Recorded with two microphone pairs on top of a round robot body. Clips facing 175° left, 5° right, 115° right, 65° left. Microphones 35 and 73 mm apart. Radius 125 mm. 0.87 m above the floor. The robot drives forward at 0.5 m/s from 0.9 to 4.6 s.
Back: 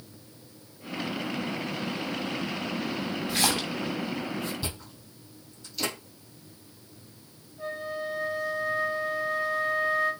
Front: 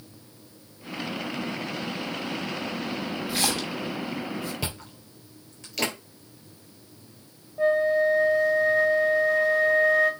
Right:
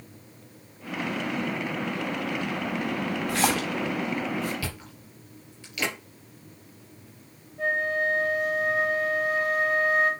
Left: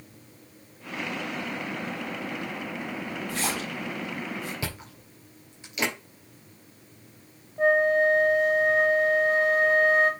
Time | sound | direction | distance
3.3 | a splash | 90° right | 0.5 m
4.6 | chewing | straight ahead | 3.5 m
7.6 | a flute | 5° left | 0.6 m